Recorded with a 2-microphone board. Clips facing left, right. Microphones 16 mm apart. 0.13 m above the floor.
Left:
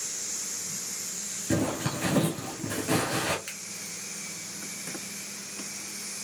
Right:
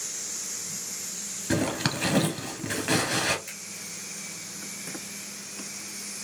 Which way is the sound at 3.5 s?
35° left (ahead or behind).